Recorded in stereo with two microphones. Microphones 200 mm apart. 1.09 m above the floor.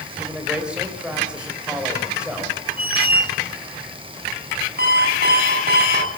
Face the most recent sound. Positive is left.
turn(degrees=-50)  # may be behind; listen again after turning